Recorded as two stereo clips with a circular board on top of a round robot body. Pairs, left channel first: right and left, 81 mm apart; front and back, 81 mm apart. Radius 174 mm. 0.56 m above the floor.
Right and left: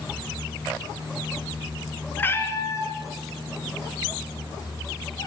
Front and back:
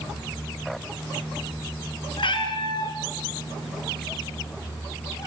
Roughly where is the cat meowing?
Ahead.